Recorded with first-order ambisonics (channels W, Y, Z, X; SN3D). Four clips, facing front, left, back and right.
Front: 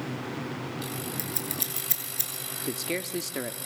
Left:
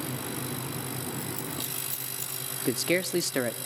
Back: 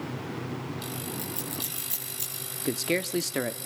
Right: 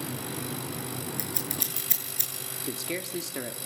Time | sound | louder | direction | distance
1.2 | scissors | right 1 dB, front 1 dB | 55° right | 6.5 m
2.6 | a man speaking | left 8 dB, back 5 dB | 120° left | 0.7 m